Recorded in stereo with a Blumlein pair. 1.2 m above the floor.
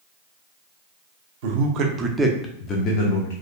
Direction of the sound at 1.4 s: 50° right.